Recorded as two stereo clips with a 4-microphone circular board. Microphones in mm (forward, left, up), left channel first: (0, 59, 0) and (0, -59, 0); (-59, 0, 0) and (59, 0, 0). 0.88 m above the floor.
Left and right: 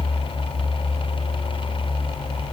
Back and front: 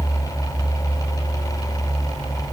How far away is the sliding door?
No sliding door in this recording.